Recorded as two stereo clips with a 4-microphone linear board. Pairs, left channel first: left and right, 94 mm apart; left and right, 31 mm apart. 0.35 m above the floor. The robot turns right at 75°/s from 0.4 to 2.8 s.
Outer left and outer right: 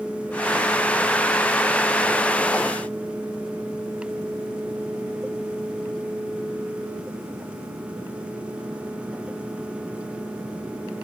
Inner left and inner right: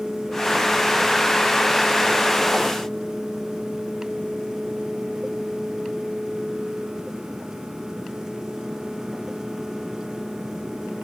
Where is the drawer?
No drawer in this recording.